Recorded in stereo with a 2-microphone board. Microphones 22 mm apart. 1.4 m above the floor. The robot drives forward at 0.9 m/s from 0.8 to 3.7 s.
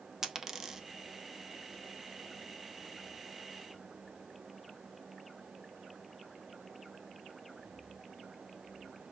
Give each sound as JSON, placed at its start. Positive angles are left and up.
{"t": 0.2, "sound": "a dropped coin", "side_deg": -20, "distance_m": 0.8}